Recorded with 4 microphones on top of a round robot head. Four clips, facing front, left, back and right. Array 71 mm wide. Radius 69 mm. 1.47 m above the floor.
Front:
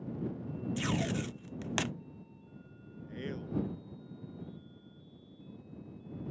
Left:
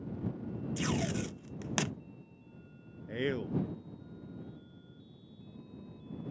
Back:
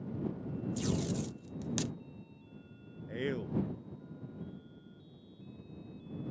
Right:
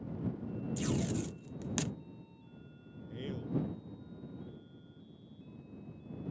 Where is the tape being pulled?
35° left.